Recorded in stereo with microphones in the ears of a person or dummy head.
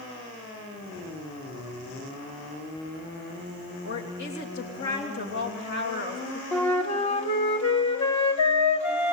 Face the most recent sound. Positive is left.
turn(degrees=30)  # may be behind; listen again after turning